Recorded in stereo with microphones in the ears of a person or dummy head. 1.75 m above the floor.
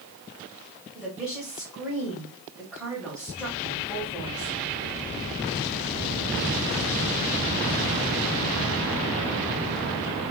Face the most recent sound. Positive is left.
turn(degrees=5)  # may be behind; listen again after turning